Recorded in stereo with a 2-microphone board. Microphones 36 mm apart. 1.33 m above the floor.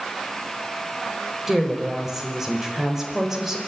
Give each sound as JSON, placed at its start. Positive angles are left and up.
{"t": 1.5, "sound": "a woman speaking", "side_deg": -10, "distance_m": 5.0}